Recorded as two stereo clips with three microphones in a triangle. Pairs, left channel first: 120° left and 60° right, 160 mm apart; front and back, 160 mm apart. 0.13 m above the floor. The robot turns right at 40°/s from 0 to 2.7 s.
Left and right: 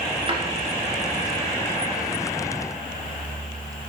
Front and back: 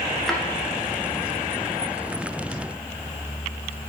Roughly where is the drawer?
Right.